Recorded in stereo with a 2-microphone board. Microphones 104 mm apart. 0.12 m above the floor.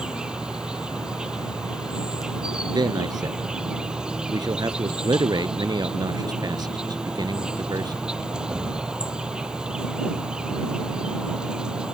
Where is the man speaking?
45° right (ahead or behind).